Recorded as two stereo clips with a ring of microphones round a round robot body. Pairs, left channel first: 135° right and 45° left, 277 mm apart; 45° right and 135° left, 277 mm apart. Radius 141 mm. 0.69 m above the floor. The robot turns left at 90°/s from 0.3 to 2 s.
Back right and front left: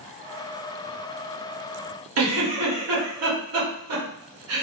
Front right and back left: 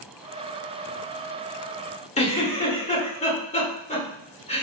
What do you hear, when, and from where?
2.2 s a giggle: 20° left, 1.4 m